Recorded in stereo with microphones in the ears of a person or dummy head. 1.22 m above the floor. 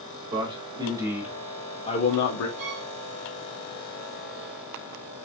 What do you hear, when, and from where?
0.3 s a man speaking: 25° right (ahead or behind), 1.2 m; by 2.5 s 65° left (ahead or behind), 0.6 m
2.6 s a violin: 35° right (ahead or behind), 1.3 m